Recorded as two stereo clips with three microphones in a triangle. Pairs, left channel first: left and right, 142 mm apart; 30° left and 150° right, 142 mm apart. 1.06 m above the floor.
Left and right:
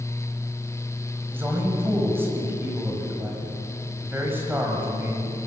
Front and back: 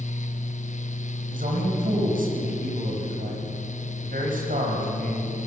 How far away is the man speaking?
About 6 m.